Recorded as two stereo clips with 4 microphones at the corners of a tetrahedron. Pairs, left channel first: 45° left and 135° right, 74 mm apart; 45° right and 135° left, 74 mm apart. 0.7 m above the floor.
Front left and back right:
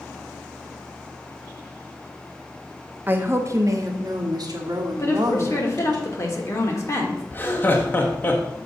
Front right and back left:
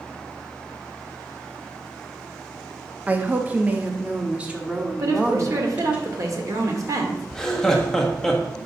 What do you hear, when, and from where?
3.1 s a woman speaking: straight behind, 0.6 m; by 6.0 s 150° right, 1.8 m
5.0 s a woman speaking: 95° left, 1.5 m
7.3 s laughter: 30° left, 1.0 m